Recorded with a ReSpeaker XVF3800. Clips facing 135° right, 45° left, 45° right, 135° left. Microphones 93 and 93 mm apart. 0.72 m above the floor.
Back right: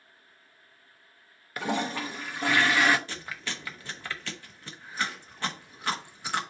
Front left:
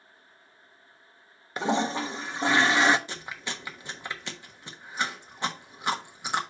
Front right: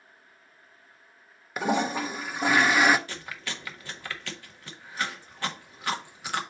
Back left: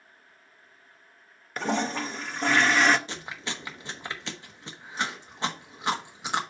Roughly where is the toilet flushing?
Ahead left.